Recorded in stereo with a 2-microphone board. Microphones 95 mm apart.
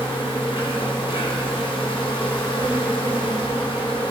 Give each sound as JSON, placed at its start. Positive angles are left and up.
{"t": 0.0, "sound": "an insect", "side_deg": 65, "distance_m": 7.5}